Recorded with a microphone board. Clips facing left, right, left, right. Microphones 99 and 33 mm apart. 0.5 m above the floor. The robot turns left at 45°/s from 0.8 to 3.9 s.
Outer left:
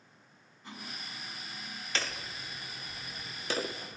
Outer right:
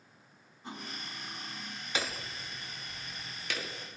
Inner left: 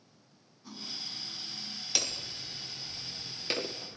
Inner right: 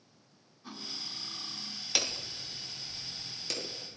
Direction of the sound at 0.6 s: 20° right.